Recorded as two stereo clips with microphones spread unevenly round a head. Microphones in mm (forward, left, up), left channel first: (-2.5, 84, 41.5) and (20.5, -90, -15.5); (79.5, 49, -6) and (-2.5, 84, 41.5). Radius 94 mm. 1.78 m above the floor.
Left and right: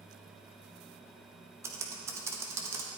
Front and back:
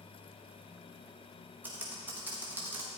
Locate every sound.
1.6 s typing on a keyboard: 170° right, 1.3 m